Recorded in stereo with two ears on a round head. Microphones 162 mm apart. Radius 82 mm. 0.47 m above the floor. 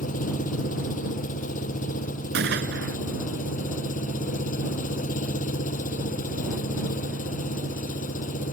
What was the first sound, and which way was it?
An engine running, 45° left (ahead or behind).